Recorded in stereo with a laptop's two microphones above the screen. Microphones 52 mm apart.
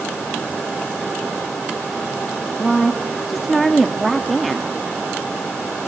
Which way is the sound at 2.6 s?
Centre (ahead or behind).